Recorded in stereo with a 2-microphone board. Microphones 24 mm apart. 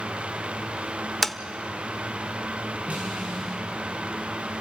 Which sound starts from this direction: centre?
Tapping, at 1.2 s.